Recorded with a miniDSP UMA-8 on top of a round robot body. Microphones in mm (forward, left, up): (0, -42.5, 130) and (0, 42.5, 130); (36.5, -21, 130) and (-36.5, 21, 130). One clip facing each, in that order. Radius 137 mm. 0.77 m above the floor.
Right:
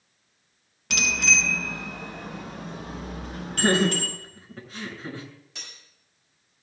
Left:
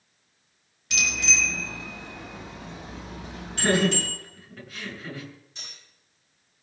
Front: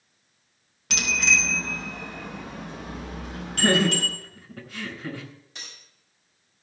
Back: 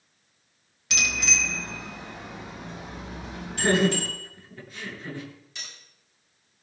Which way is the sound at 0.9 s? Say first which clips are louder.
Right 3 dB, front 3 dB; 65° right.